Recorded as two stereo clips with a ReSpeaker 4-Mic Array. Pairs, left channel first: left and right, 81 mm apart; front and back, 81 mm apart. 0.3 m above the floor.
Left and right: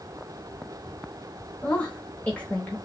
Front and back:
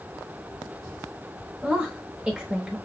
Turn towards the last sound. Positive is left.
turn(degrees=130)